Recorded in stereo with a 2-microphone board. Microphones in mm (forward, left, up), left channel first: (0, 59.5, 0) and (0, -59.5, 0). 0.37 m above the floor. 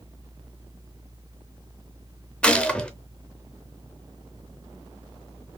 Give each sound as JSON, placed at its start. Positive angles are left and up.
{"t": 2.4, "sound": "a gunshot", "side_deg": 10, "distance_m": 0.6}